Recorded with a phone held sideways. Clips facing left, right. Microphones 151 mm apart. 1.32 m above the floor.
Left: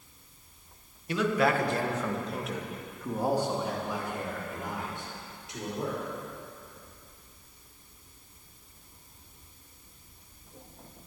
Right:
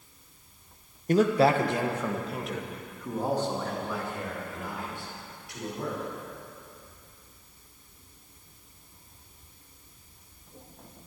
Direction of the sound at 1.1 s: 45° right (ahead or behind).